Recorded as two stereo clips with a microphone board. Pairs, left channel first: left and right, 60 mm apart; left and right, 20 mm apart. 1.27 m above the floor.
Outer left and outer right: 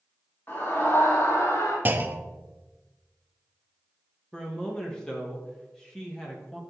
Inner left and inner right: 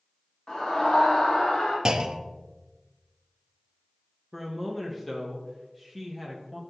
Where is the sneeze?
I don't hear a sneeze.